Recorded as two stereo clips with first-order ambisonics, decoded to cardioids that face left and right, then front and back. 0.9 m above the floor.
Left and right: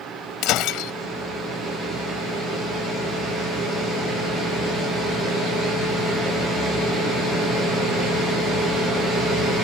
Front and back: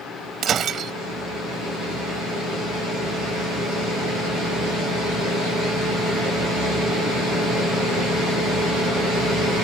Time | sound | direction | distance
0.4 | breaking glass | 120° left | ?